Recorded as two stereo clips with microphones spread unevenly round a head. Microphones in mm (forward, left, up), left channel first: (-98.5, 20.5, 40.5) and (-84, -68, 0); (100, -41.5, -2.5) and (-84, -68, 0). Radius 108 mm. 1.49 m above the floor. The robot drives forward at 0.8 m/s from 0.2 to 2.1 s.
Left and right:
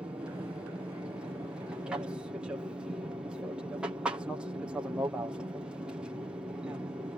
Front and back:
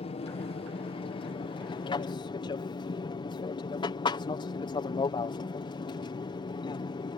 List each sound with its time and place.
0.0 s an aircraft: 35° right; by 7.2 s 40° right